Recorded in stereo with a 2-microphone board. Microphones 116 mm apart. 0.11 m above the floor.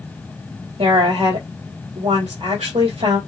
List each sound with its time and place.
0.8 s a woman speaking: 60° right (ahead or behind), 3.5 m